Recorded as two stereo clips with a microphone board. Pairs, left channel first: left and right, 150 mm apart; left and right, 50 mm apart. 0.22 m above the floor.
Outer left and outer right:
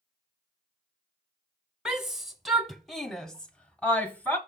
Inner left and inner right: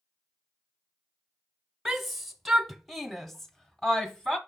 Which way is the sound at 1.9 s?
5° right (ahead or behind).